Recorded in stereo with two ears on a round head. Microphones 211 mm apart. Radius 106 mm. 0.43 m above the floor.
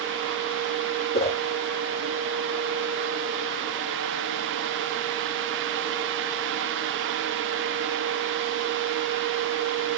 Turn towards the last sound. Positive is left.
turn(degrees=25)  # may be behind; listen again after turning